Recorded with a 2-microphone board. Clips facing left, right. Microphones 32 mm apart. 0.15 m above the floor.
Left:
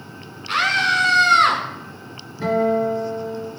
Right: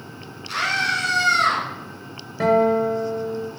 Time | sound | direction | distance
0.5 | a scream | 35° left (ahead or behind) | 1.9 m
2.4 | a guitar | 75° right (ahead or behind) | 6.5 m